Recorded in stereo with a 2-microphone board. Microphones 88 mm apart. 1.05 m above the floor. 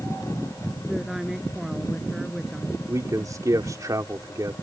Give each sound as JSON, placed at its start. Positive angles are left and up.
{"t": 0.9, "sound": "a woman speaking", "side_deg": -5}
{"t": 2.9, "sound": "a man speaking", "side_deg": -40}